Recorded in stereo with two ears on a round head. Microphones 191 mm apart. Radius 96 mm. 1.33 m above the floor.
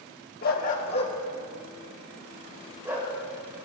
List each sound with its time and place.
0.4 s a dog barking: 45° left (ahead or behind), 1.1 m; by 3.1 s 15° right (ahead or behind), 2.5 m